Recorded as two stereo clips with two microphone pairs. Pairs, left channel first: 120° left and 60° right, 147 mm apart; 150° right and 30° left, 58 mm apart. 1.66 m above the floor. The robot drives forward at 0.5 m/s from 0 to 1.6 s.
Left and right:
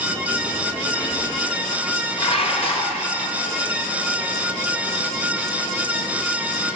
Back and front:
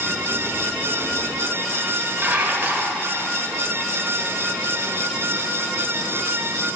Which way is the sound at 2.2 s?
85° left.